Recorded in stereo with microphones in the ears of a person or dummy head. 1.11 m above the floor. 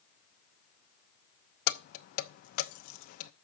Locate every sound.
1.7 s keys jangling: 50° left (ahead or behind), 0.7 m